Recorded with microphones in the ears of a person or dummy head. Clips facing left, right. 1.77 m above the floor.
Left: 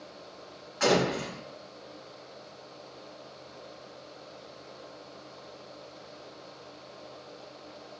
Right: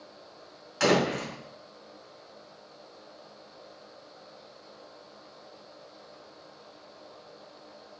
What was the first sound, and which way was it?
A door slam, 50° right (ahead or behind).